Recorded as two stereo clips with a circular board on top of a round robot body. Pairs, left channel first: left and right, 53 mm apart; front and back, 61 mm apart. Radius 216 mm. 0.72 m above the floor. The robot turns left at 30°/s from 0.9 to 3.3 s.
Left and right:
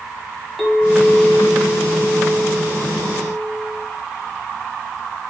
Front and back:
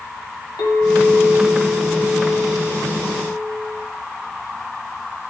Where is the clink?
5° left, 2 m; by 3.9 s 70° right, 2 m.